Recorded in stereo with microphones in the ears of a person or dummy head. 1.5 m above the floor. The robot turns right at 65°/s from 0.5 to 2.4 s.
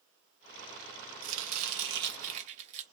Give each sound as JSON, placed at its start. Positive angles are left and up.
{"t": 1.2, "sound": "chopping", "azimuth_deg": -110, "distance_m": 0.7}